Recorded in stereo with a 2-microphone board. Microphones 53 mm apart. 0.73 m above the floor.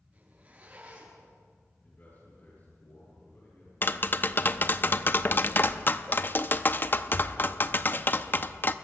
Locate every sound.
0.1 s a zipper: 30° right (ahead or behind), 9 m
1.8 s a man speaking: 45° left (ahead or behind), 10 m
3.8 s tapping: 40° left (ahead or behind), 0.6 m